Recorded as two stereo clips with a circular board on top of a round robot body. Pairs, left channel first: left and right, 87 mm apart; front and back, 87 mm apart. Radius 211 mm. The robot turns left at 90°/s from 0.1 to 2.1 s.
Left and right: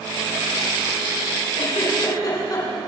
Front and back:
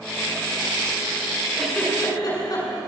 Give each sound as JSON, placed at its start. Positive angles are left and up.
{"t": 1.6, "sound": "a giggle", "azimuth_deg": 95, "distance_m": 6.5}